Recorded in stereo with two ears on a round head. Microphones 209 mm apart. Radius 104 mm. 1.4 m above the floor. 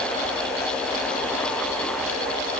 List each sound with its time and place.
Only background noise.